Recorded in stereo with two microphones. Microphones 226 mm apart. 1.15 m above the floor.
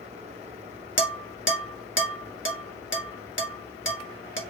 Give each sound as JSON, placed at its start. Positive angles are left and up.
{"t": 1.0, "sound": "dishes clattering", "side_deg": 60, "distance_m": 1.2}